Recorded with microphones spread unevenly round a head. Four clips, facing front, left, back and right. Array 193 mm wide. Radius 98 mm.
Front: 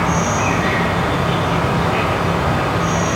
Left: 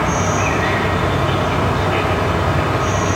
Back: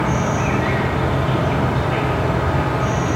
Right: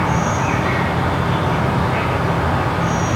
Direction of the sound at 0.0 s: 115° left.